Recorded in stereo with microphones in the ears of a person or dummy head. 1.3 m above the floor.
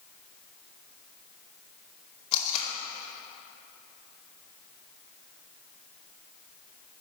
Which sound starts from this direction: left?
Tape being pulled, at 2.3 s.